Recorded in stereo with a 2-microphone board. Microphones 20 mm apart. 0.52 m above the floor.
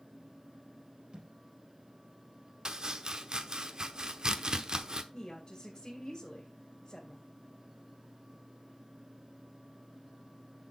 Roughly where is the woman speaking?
Left.